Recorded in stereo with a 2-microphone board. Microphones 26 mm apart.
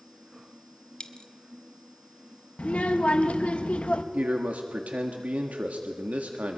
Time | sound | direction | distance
1.0 | a dropped coin | 35° left (ahead or behind) | 1.2 m
2.6 | a child speaking | 55° left (ahead or behind) | 0.8 m
4.1 | a man speaking | 75° right (ahead or behind) | 1.4 m